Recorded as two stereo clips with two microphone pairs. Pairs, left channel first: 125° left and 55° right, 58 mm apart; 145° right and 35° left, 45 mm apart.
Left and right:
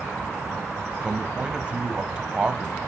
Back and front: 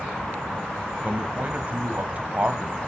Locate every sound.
1.0 s a man speaking: straight ahead, 1.1 m